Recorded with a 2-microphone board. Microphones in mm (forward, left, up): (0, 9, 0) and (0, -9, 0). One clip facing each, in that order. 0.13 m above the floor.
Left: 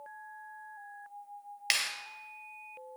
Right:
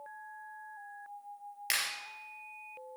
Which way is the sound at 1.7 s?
25° left (ahead or behind).